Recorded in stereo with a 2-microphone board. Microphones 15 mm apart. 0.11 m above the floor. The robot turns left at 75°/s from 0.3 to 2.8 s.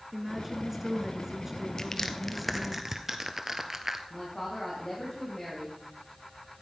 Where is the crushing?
35° left (ahead or behind), 1.1 m; by 4.0 s 25° right (ahead or behind), 1.1 m.